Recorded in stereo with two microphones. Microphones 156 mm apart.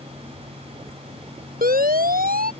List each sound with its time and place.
1.6 s a siren: 70° right (ahead or behind)